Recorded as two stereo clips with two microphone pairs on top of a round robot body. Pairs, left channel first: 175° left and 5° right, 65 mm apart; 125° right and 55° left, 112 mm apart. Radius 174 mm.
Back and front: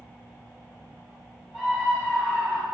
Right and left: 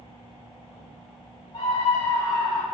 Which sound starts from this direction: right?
A scream, at 1.5 s.